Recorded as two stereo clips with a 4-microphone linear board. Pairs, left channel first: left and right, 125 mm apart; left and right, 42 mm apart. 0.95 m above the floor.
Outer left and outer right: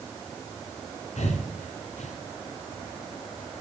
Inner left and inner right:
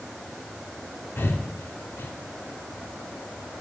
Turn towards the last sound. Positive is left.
turn(degrees=65)  # may be behind; listen again after turning